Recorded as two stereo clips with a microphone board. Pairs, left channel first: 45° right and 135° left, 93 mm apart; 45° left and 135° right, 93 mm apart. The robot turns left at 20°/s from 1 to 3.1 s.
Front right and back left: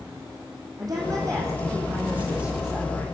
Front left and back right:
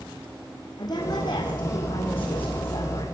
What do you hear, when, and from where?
0.8 s a woman speaking: 85° left, 5 m; by 3.0 s 45° left, 5 m